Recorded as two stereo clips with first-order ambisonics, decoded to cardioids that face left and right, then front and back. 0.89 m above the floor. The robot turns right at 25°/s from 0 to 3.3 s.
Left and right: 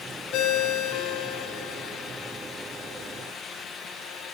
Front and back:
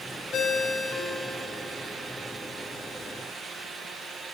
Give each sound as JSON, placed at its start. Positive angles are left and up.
{"t": 0.3, "sound": "a ringtone", "azimuth_deg": 60, "distance_m": 0.6}